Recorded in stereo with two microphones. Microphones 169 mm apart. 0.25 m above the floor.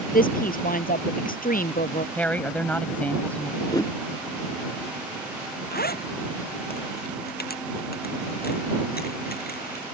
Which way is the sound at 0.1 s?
60° left (ahead or behind).